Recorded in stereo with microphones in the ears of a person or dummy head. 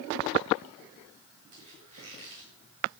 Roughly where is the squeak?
Right.